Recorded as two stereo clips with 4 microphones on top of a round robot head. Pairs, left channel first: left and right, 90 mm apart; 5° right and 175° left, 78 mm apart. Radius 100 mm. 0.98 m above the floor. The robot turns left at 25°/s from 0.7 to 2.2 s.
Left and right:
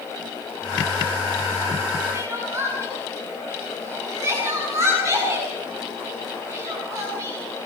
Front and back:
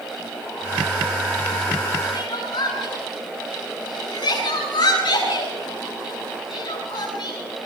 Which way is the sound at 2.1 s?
25° right.